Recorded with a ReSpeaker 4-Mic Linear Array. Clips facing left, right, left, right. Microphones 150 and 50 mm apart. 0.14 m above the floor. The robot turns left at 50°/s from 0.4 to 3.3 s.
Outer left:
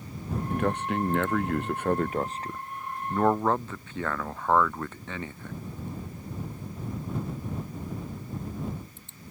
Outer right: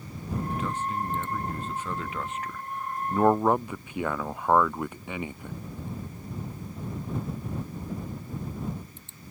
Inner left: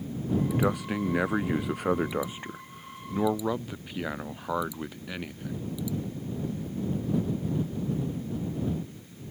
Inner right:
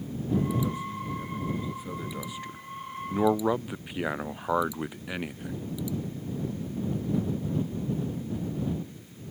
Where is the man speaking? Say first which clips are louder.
Outer left 7 dB, inner left 3 dB; 125° left; by 5.6 s 15° right.